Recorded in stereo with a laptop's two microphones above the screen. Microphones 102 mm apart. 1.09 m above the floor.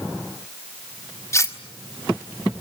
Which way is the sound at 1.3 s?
30° left (ahead or behind).